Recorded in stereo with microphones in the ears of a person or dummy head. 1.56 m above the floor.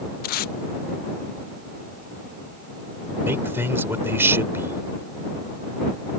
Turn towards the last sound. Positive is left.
turn(degrees=-15)  # may be behind; listen again after turning